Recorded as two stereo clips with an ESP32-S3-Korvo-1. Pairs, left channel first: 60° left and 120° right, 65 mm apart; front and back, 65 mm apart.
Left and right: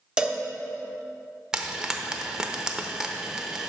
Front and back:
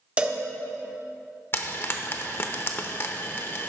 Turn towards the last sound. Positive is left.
turn(degrees=-45)